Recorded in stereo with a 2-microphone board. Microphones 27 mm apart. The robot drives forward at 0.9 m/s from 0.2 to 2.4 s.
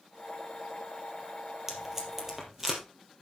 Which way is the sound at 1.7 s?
15° right (ahead or behind).